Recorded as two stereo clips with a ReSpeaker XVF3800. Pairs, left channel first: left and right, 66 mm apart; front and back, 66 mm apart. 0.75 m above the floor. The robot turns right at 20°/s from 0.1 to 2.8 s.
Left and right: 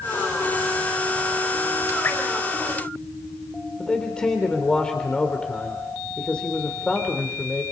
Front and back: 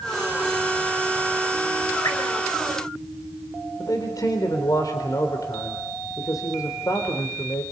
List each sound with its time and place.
2.0 s dripping: 35° left, 4.5 m
3.8 s a man speaking: 15° left, 3.5 m